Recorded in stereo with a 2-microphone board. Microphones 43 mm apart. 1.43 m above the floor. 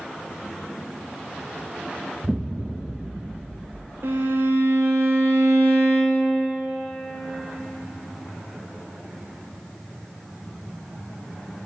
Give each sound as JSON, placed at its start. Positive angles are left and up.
{"t": 2.2, "sound": "an explosion", "side_deg": -20, "distance_m": 0.7}
{"t": 4.0, "sound": "a violin", "side_deg": -70, "distance_m": 0.8}